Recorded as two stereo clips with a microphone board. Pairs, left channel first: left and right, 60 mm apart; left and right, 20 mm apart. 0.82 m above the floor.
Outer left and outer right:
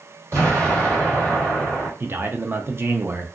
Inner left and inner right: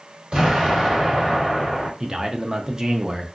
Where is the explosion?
50° right (ahead or behind), 1.9 m.